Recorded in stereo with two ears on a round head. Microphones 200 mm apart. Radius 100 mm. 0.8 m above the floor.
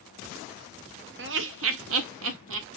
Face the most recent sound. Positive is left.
turn(degrees=-60)  # may be behind; listen again after turning